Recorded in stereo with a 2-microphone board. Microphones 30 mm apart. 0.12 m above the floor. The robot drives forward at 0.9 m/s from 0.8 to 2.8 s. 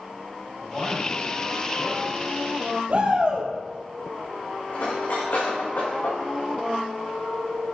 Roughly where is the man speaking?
Left.